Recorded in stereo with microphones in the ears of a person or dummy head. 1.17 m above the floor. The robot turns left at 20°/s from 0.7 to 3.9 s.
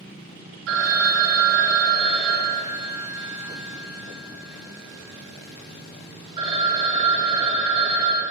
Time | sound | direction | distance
0.7 | a phone ringing | 90° right | 1.0 m